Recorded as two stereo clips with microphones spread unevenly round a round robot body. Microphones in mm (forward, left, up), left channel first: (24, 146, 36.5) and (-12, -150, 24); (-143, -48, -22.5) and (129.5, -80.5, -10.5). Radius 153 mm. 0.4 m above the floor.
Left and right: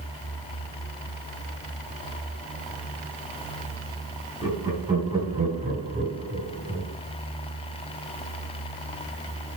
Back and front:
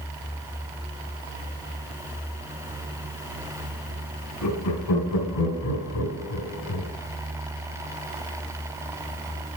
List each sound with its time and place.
4.4 s laughter: 175° right, 4.5 m; by 6.9 s 155° right, 3 m